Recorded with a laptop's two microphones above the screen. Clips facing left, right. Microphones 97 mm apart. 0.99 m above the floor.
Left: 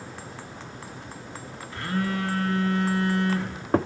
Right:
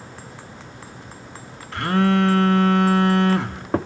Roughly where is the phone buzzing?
Right.